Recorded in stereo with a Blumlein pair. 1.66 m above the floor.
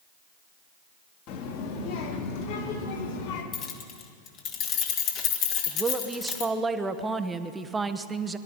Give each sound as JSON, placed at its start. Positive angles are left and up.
{"t": 1.3, "sound": "a child speaking", "azimuth_deg": 40, "distance_m": 2.5}
{"t": 3.5, "sound": "keys jangling", "azimuth_deg": 35, "distance_m": 1.7}
{"t": 5.7, "sound": "a woman speaking", "azimuth_deg": -10, "distance_m": 0.9}